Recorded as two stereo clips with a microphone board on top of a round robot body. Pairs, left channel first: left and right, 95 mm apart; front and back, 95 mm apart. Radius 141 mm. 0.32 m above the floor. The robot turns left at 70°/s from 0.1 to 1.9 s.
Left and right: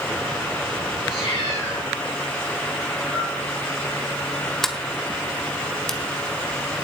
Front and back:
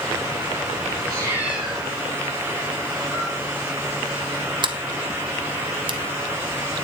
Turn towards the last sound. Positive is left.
turn(degrees=175)